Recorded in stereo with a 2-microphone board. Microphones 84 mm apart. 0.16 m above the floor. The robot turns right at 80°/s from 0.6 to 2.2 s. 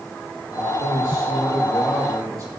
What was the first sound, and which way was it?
A man speaking, 90° left.